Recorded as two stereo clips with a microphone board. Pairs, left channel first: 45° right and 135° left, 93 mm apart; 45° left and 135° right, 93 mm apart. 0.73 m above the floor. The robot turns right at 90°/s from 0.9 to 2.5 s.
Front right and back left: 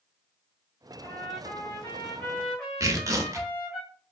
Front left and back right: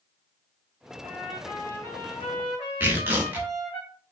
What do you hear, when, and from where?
1.0 s a trumpet: 80° right, 1.9 m; by 3.8 s 50° left, 1.9 m
2.8 s tearing paper: 165° left, 0.6 m